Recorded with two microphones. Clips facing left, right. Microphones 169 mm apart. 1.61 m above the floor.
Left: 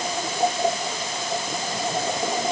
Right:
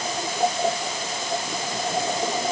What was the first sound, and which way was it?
Only background noise.